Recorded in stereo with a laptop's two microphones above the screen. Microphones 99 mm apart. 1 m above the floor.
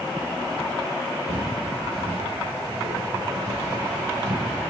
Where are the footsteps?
70° right (ahead or behind), 4.5 m; by 4.6 s 80° right, 6 m.